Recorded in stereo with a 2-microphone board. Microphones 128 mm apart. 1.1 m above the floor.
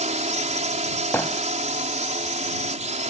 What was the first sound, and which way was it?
A drone, 65° right (ahead or behind).